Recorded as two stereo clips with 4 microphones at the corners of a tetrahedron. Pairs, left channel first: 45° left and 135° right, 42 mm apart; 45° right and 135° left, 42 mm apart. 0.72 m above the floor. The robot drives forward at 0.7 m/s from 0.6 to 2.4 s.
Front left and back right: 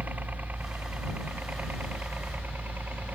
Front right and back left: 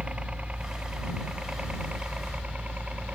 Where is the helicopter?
170° right.